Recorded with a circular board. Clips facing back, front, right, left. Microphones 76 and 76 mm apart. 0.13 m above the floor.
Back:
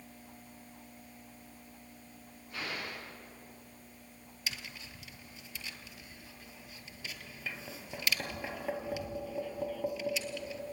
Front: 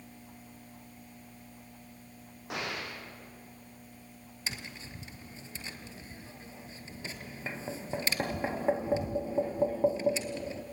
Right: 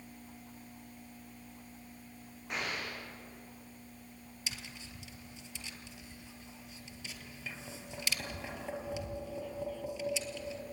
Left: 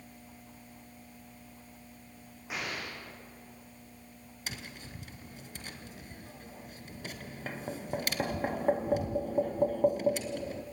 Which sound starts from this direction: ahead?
An explosion, at 2.5 s.